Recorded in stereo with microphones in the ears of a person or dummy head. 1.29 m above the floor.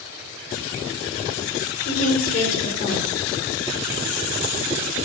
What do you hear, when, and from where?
1.9 s a woman speaking: 55° left (ahead or behind), 4 m